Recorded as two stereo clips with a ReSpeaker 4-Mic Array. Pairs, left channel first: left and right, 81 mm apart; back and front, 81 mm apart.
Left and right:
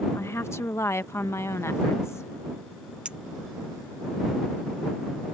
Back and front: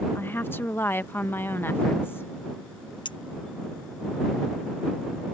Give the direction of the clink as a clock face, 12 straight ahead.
6 o'clock.